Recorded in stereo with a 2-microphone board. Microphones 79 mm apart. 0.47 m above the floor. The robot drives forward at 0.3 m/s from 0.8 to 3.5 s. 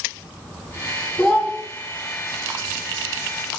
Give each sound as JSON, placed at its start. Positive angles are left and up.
{"t": 1.2, "sound": "a child speaking", "side_deg": 15, "distance_m": 1.8}